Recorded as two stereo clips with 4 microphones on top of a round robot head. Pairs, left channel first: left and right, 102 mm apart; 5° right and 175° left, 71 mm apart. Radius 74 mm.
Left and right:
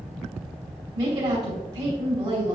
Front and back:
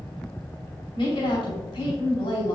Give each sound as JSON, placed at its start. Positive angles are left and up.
{"t": 0.9, "sound": "a woman speaking", "azimuth_deg": -30, "distance_m": 3.5}